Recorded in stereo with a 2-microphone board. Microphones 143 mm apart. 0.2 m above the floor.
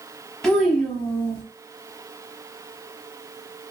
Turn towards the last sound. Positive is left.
turn(degrees=5)  # may be behind; listen again after turning